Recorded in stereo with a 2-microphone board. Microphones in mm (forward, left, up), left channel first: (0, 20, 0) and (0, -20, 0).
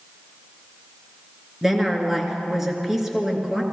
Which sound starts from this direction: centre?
A woman speaking, at 1.6 s.